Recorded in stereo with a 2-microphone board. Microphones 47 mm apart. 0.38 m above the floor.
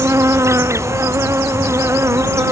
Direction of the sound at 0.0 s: 75° right (ahead or behind).